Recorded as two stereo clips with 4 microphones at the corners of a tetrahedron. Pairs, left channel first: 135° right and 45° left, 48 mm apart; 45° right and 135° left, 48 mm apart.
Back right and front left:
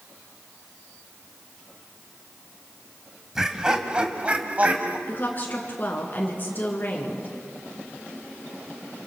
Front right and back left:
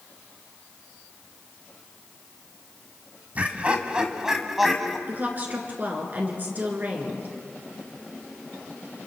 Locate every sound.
3.4 s laughter: 115° left, 1.9 m; by 5.0 s 40° left, 1.9 m
5.1 s a woman speaking: straight behind, 3 m